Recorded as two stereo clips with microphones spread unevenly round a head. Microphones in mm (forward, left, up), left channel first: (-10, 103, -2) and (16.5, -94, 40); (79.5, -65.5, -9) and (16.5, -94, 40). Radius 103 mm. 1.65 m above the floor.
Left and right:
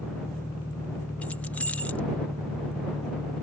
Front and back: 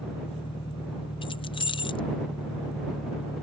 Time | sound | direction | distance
0.0 | an engine running | 20° left | ?
1.2 | keys jangling | 10° left | ?